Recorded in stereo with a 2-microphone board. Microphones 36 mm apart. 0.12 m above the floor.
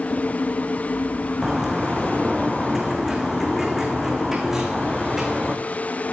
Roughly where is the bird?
Centre.